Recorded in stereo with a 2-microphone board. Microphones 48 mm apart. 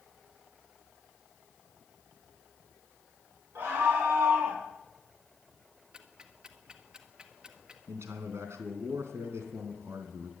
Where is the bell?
No bell in this recording.